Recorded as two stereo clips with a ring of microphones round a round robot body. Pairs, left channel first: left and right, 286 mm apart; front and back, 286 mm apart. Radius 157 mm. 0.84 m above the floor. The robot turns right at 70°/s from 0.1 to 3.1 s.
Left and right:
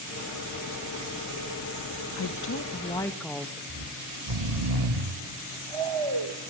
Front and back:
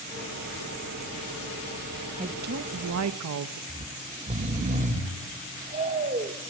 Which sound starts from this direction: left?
A woman speaking, at 2.2 s.